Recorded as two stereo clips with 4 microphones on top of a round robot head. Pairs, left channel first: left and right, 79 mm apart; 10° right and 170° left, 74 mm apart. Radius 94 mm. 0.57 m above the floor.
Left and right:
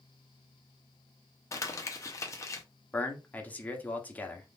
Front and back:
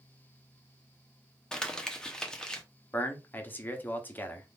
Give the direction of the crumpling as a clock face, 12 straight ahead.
10 o'clock.